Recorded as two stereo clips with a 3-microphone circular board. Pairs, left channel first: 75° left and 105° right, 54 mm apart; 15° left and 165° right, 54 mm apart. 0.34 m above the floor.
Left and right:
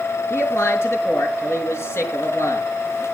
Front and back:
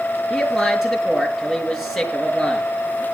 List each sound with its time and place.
0.3 s a man speaking: 110° left, 5 m